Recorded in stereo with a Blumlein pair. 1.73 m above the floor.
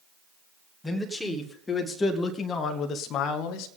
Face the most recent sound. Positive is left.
turn(degrees=40)